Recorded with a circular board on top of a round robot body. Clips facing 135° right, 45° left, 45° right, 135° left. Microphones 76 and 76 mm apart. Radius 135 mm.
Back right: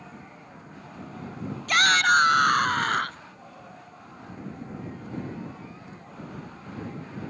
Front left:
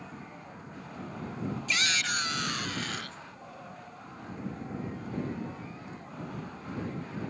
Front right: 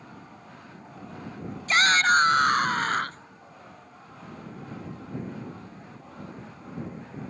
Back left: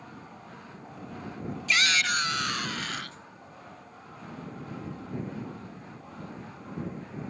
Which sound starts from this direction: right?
A shout, at 1.7 s.